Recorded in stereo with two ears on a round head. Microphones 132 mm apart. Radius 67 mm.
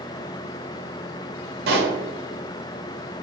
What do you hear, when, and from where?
1.7 s a pop: 75° right (ahead or behind), 0.7 m